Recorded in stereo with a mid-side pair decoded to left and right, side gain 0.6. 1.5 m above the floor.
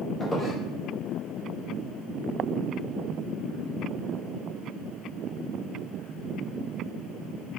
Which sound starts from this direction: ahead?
A squeak, at 0.2 s.